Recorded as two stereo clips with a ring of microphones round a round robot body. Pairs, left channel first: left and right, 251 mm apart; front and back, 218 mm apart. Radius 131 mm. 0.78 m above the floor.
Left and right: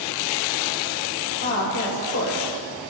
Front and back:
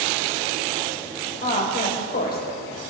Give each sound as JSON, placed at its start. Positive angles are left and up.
{"t": 1.4, "sound": "a woman speaking", "azimuth_deg": 45, "distance_m": 3.5}